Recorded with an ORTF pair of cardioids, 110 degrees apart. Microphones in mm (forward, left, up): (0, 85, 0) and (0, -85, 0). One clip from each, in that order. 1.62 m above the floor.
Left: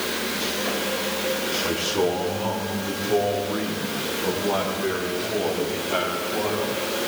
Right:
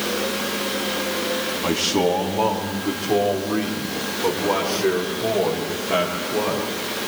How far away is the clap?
No clap in this recording.